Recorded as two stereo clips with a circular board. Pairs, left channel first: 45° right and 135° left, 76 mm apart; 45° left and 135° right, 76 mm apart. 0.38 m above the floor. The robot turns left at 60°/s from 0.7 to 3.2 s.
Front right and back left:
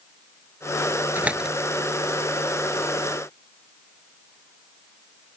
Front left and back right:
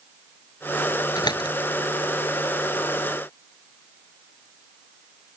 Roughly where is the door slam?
Left.